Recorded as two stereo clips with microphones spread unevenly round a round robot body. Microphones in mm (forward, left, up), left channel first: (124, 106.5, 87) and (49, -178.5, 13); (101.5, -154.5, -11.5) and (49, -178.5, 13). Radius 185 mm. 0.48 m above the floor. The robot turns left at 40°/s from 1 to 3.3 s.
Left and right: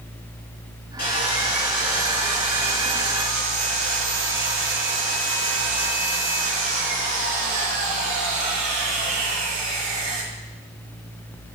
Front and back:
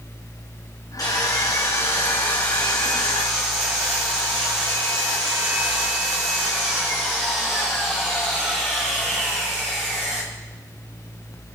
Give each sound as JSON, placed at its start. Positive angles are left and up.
{"t": 1.0, "sound": "sawing", "azimuth_deg": 15, "distance_m": 9.0}